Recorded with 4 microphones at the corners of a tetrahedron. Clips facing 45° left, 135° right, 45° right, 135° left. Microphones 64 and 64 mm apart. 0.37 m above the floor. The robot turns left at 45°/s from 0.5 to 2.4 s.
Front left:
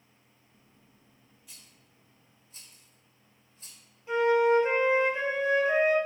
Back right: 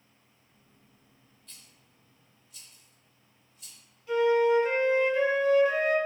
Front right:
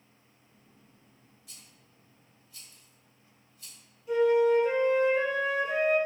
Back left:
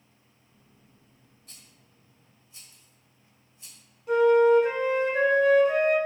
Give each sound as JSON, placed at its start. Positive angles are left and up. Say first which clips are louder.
{"t": 1.5, "sound": "a rattle", "louder": "even, back left 1 dB", "azimuth_deg": 120, "distance_m": 1.3}
{"t": 4.1, "sound": "a flute", "louder": "even, back left 4 dB", "azimuth_deg": 110, "distance_m": 1.2}